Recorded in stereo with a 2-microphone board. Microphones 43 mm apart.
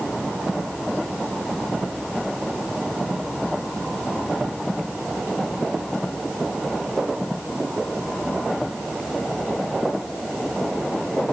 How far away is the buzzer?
No buzzer in this recording.